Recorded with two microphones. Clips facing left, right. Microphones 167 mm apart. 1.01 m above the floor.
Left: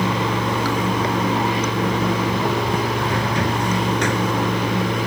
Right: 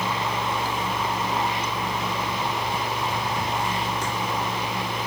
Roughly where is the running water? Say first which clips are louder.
Left 6 dB; left.